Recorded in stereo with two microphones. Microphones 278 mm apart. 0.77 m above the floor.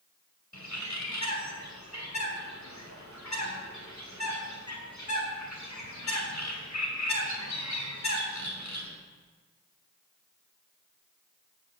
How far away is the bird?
About 2.5 m.